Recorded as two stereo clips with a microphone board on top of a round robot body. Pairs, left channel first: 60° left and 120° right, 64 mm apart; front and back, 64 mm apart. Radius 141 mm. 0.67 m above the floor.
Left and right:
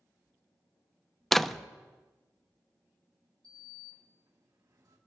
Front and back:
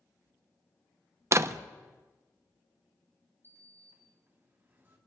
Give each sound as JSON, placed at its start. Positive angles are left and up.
{"t": 1.3, "sound": "a door slam", "azimuth_deg": 145, "distance_m": 0.6}
{"t": 3.4, "sound": "a sliding door", "azimuth_deg": -125, "distance_m": 2.5}